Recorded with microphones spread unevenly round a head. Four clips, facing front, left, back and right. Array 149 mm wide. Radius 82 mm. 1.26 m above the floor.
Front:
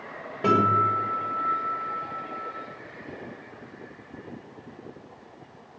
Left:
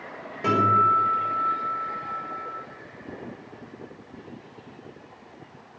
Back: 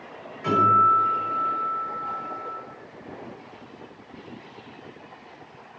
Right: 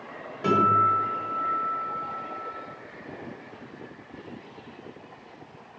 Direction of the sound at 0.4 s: 5° left.